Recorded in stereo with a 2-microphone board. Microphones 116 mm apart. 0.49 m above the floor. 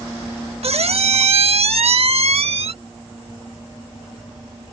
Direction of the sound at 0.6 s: 65° right (ahead or behind).